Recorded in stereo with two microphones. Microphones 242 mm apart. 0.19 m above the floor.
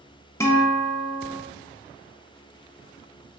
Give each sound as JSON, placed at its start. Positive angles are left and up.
{"t": 0.4, "sound": "a guitar", "side_deg": 10, "distance_m": 0.7}